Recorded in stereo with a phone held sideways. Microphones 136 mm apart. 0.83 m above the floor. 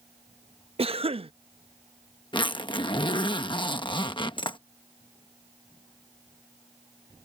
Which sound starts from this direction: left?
A zipper, at 2.3 s.